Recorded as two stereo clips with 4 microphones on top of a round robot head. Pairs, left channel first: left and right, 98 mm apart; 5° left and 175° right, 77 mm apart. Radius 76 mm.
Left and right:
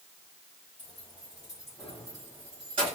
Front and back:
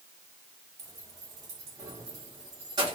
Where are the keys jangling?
140° left, 1.6 m; by 3.0 s 125° right, 1.0 m.